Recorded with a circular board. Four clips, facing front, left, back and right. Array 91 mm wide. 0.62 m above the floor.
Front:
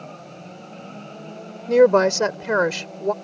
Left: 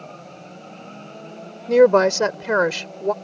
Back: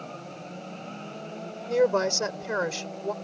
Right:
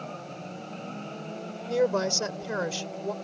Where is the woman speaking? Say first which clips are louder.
Left 12 dB, front 9 dB; 60° left.